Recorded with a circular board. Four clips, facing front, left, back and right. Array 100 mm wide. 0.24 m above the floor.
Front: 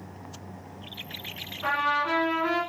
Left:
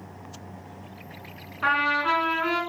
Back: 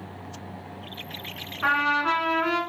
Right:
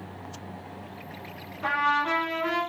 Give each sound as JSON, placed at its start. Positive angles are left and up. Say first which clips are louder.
{"t": 1.6, "sound": "a trumpet", "louder": "left 1 dB, back 3 dB", "azimuth_deg": 130, "distance_m": 1.3}